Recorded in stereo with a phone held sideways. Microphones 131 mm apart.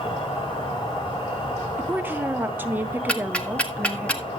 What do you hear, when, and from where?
0.0 s an insect: 40° left (ahead or behind), 3.5 m
1.8 s a woman speaking: 15° right (ahead or behind), 0.8 m
3.1 s ticking: 10° left (ahead or behind), 1.2 m